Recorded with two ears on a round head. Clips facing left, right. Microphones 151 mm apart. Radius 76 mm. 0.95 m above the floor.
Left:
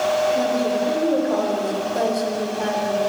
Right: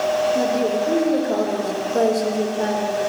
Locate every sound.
0.3 s a woman speaking: 55° right (ahead or behind), 2.5 m